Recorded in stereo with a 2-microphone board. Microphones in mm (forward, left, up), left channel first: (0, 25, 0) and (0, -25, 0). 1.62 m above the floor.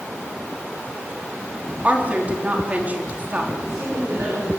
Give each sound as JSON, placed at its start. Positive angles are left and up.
{"t": 1.8, "sound": "a woman speaking", "side_deg": -30, "distance_m": 4.0}
{"t": 3.6, "sound": "a woman speaking", "side_deg": -60, "distance_m": 7.0}